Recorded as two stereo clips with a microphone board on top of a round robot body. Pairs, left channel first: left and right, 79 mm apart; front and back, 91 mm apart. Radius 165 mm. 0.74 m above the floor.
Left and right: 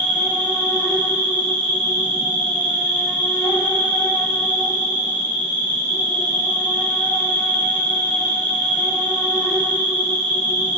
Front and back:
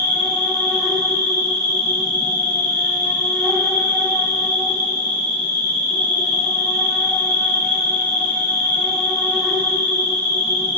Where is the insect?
85° right, 1.6 m.